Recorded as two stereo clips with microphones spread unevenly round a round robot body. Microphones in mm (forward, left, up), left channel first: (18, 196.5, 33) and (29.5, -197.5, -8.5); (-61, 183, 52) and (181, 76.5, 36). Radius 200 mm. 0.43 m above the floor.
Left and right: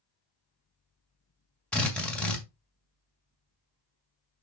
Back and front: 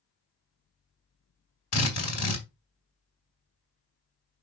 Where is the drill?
Straight behind, 1.9 m.